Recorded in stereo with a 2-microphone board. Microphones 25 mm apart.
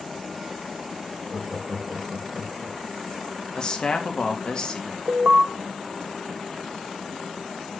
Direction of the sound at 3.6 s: 40° left (ahead or behind).